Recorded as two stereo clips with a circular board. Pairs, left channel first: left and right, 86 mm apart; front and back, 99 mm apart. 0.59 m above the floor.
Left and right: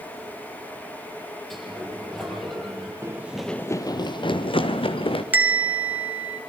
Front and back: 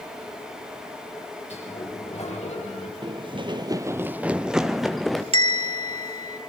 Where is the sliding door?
Straight ahead, 8.5 m.